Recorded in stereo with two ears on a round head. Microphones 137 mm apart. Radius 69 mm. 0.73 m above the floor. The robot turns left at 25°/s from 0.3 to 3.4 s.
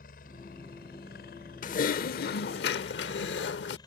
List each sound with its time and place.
0.0 s a helicopter: 105° left; by 3.9 s 30° left
1.6 s typing on a keyboard: 125° left; by 3.8 s 80° left